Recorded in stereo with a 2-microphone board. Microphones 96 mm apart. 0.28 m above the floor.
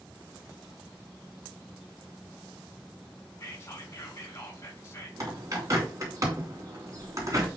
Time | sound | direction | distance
3.4 | whispering | 30° left (ahead or behind) | 3 m
5.2 | a bird | 35° right (ahead or behind) | 2.5 m